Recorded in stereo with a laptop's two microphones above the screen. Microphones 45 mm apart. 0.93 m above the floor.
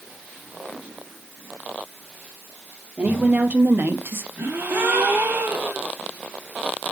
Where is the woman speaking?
35° right (ahead or behind), 2.5 m; by 4.3 s 60° right (ahead or behind), 1.2 m.